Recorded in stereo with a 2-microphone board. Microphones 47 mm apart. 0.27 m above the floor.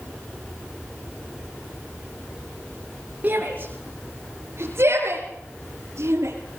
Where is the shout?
35° right (ahead or behind), 4 m; by 6.3 s 80° right, 5.5 m.